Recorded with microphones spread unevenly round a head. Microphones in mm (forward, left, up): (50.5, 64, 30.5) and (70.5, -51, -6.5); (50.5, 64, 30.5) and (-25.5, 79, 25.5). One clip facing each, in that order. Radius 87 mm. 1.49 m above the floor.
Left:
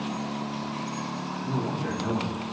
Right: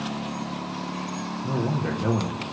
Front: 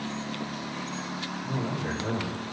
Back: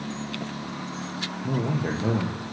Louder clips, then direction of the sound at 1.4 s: Right 3 dB, back 5 dB; 150° right.